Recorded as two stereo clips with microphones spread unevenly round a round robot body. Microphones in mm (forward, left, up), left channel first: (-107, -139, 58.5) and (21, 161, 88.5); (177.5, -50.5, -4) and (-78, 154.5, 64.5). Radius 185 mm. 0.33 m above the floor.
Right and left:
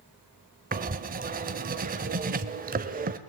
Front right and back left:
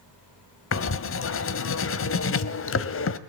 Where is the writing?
Straight ahead, 1.0 m.